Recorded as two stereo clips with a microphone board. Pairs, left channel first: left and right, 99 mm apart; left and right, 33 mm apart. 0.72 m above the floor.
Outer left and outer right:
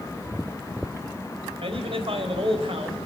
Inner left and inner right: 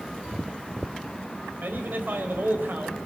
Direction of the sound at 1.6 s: 70° right (ahead or behind).